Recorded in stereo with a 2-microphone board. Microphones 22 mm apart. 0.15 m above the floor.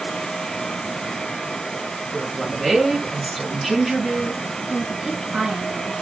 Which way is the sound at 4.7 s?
25° right (ahead or behind).